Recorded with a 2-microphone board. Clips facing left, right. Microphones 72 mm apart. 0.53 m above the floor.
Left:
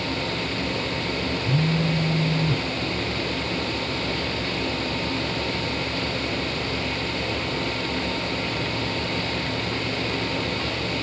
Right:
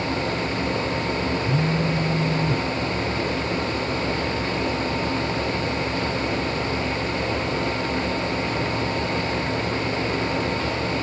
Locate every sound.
1.4 s a phone buzzing: 40° left (ahead or behind)